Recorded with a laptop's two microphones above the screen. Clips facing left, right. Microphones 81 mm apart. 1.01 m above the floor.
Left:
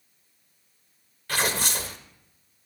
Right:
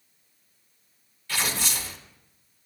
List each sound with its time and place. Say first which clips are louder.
1.3 s tearing paper: left 3 dB; 55° left (ahead or behind), 1.2 m